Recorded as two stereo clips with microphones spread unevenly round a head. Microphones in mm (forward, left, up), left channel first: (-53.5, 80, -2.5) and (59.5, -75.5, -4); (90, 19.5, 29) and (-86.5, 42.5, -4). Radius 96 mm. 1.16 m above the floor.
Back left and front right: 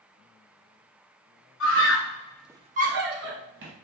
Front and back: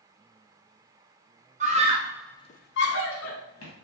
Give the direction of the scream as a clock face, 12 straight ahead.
7 o'clock.